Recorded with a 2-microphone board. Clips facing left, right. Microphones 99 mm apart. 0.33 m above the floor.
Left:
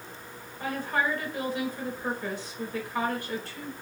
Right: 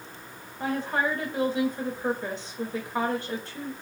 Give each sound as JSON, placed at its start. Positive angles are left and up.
{"t": 0.6, "sound": "a woman speaking", "side_deg": -25, "distance_m": 1.0}